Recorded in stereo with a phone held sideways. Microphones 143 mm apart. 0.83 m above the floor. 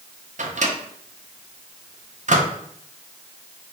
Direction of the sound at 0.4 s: 60° right (ahead or behind).